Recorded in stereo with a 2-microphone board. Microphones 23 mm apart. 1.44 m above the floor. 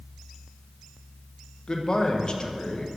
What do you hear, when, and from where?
1.7 s a man speaking: 35° left (ahead or behind), 0.6 m